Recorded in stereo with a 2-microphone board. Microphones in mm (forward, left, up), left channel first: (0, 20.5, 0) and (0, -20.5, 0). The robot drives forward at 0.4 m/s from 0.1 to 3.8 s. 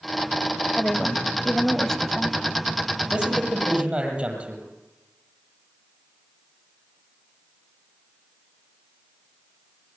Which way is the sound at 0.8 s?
15° left (ahead or behind).